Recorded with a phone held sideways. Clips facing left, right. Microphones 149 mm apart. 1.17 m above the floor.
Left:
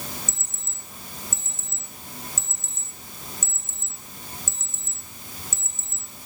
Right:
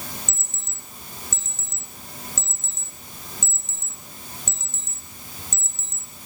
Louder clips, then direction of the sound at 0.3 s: Right 1 dB; 70° right (ahead or behind).